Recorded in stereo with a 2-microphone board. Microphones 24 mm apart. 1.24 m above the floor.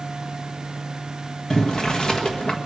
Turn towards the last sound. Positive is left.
turn(degrees=35)  # may be behind; listen again after turning